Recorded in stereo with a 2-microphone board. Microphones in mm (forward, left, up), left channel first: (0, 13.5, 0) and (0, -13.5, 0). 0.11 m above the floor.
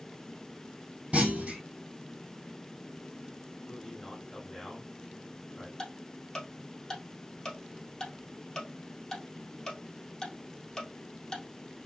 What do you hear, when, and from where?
1.1 s a clunk: 60° right (ahead or behind), 2 m
3.6 s a man speaking: 10° left (ahead or behind), 3.5 m
5.8 s ticking: 15° left (ahead or behind), 2.5 m